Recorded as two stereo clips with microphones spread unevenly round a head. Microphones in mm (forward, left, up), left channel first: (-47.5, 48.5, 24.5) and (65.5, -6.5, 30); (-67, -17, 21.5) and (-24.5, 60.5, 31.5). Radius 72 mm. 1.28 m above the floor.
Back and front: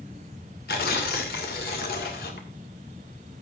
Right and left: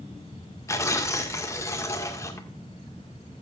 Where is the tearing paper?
175° right, 1.8 m.